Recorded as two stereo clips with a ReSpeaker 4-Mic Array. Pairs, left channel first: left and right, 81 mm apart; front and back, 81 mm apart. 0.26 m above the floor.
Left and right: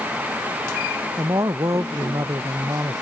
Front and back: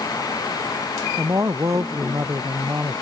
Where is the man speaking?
130° right.